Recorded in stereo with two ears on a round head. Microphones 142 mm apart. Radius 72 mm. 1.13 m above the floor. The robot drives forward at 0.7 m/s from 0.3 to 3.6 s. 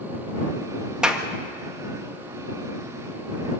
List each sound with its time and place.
1.0 s a clap: 5° right (ahead or behind), 1.6 m